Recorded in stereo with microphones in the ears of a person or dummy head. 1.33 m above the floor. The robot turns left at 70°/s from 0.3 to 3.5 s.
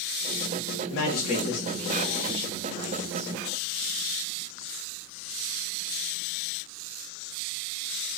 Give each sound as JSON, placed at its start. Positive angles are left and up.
{"t": 0.9, "sound": "a man speaking", "azimuth_deg": 70, "distance_m": 0.7}